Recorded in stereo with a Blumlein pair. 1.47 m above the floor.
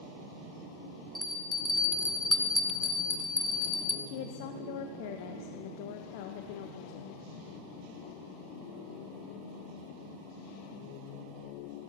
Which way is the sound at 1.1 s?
5° left.